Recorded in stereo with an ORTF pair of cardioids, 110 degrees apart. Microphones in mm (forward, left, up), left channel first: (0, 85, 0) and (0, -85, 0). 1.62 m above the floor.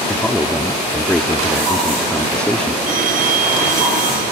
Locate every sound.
0.1 s a man speaking: 5° left
2.9 s a phone ringing: 55° right